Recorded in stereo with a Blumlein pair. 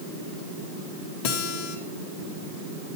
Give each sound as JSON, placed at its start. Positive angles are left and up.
{"t": 1.2, "sound": "a guitar", "azimuth_deg": 45, "distance_m": 2.5}